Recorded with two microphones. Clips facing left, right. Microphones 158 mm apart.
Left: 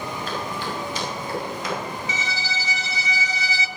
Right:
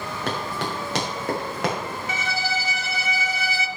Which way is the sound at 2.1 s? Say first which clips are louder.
Right 3 dB; 55° right (ahead or behind).